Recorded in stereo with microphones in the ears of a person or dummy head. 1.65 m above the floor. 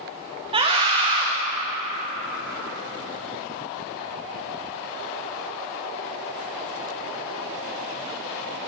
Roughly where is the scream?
Right.